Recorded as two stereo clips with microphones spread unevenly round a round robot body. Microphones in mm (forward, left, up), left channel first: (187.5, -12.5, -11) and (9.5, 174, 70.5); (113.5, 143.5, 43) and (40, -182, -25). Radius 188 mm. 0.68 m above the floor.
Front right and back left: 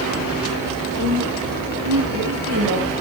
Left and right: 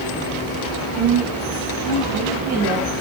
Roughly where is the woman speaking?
Behind.